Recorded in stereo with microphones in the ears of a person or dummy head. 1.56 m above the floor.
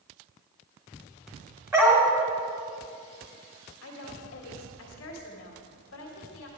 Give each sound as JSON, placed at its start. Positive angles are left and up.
{"t": 1.7, "sound": "a dog barking", "side_deg": -10, "distance_m": 2.0}
{"t": 3.8, "sound": "a woman speaking", "side_deg": 75, "distance_m": 2.0}